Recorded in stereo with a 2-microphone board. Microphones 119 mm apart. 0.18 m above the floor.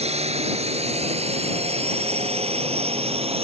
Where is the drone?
60° right (ahead or behind); by 3.5 s 55° right (ahead or behind).